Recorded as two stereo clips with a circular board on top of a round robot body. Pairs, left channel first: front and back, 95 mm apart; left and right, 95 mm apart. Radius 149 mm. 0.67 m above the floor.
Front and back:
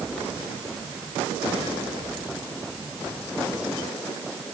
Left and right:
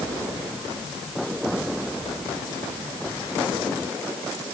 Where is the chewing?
I don't hear chewing.